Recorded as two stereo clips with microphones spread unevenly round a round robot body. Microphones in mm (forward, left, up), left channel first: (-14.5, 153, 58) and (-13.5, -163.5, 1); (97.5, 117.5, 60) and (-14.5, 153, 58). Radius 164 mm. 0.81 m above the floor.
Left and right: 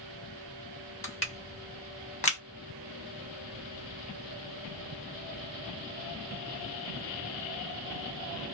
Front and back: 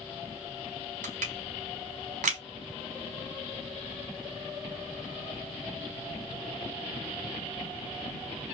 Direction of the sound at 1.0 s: 160° left.